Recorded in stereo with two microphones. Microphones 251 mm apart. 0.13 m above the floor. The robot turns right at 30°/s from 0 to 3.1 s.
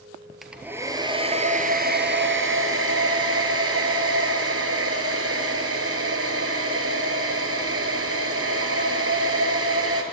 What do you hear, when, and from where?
0.4 s a hair dryer: straight behind, 1.2 m; by 10.0 s 100° right, 1.2 m